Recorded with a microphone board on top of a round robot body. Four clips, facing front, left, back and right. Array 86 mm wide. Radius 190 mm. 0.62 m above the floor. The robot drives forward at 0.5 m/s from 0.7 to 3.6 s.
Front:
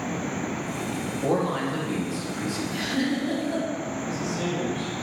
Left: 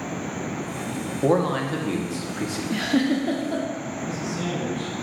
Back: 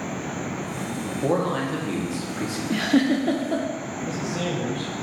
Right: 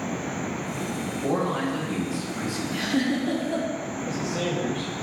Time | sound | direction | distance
1.2 | a man speaking | 100° left | 1.4 m
2.7 | a giggle | 150° left | 0.6 m
4.0 | a man speaking | 150° right | 2.5 m